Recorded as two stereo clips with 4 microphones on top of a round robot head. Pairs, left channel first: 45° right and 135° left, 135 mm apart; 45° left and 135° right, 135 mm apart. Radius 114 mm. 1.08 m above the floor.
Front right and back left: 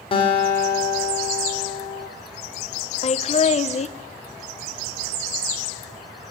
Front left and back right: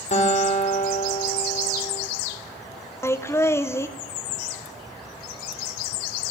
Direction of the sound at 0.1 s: 5° left.